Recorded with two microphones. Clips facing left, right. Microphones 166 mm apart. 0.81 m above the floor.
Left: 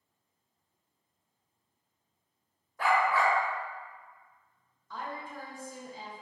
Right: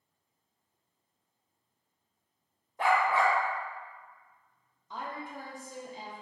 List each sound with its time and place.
2.8 s a dog barking: 25° right (ahead or behind), 0.6 m
4.9 s a woman speaking: 20° right (ahead or behind), 0.7 m